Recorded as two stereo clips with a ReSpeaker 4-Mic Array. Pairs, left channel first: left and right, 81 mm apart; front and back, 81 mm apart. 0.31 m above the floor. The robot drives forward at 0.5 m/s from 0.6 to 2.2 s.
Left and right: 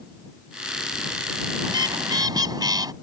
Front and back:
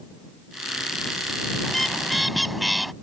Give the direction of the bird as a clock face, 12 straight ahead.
3 o'clock.